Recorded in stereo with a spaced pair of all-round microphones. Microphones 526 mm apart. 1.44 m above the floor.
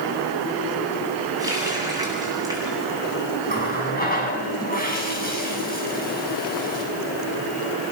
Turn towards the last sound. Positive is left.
turn(degrees=15)  # may be behind; listen again after turning